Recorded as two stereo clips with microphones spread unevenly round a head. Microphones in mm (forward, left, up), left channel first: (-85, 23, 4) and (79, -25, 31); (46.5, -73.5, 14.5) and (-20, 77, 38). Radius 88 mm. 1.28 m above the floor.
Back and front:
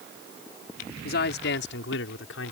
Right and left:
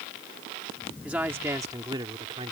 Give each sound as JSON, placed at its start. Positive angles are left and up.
{"t": 1.0, "sound": "a man speaking", "azimuth_deg": -160}